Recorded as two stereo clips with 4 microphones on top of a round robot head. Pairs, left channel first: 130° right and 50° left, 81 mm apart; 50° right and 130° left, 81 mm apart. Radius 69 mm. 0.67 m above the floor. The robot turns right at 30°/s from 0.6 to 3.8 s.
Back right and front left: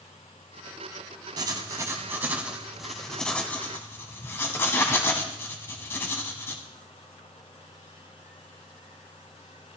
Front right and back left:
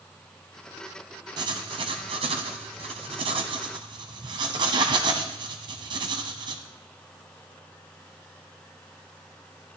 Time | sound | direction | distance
1.4 | writing | 90° left | 1.1 m